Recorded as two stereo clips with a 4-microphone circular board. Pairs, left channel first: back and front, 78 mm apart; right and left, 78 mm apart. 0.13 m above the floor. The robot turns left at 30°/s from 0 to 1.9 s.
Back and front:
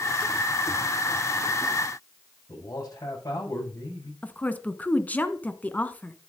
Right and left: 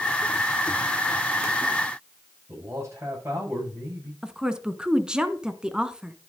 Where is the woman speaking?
155° left, 1.1 m.